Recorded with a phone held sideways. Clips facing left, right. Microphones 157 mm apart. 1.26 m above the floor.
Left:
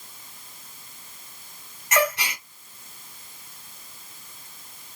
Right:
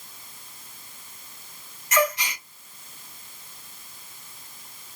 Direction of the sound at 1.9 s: 60° left (ahead or behind).